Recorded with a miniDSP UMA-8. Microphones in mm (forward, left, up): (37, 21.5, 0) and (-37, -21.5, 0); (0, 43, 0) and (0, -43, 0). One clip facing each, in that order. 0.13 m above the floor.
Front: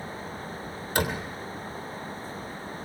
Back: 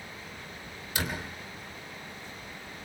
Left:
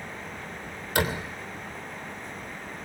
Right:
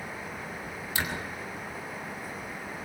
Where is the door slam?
60° left, 3 m.